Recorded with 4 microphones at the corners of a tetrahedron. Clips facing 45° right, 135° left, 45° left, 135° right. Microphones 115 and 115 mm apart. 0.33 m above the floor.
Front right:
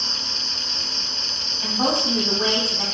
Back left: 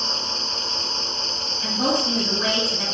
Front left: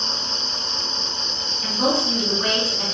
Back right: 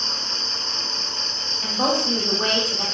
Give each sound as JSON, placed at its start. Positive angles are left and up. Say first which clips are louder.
{"t": 0.0, "sound": "an insect", "louder": "back left 5 dB, front left 2 dB", "azimuth_deg": 145, "distance_m": 1.8}
{"t": 1.6, "sound": "a woman speaking", "louder": "even, front left 1 dB", "azimuth_deg": -100, "distance_m": 1.3}